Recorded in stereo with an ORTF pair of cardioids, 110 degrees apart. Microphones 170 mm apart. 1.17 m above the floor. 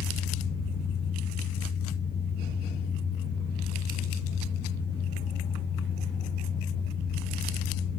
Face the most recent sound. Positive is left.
turn(degrees=50)